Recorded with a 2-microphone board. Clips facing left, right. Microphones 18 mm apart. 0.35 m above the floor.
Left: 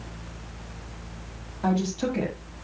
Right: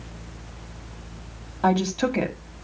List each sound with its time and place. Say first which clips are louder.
1.6 s a woman speaking: right 4 dB; 35° right (ahead or behind), 1.7 m